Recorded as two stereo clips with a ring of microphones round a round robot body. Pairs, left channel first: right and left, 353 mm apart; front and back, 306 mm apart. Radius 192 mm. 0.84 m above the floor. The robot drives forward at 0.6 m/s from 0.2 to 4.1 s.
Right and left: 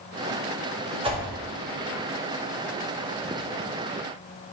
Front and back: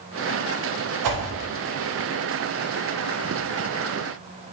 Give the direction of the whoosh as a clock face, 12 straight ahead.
6 o'clock.